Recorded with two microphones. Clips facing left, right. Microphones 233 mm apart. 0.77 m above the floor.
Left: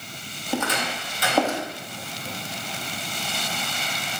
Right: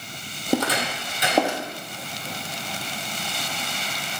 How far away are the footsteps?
About 1.1 m.